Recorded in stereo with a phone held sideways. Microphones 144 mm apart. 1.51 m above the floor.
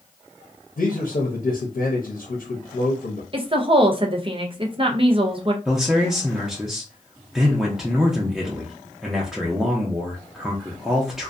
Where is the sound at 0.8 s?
75° left (ahead or behind), 0.6 m.